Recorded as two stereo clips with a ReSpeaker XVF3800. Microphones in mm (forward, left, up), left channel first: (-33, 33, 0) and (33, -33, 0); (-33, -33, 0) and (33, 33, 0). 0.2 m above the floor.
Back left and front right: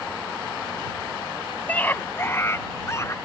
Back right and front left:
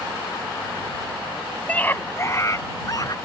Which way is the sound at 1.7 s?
175° left.